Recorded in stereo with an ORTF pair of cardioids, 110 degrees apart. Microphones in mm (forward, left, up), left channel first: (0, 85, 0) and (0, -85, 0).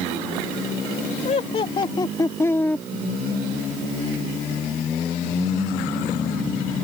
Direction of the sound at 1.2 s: 45° left.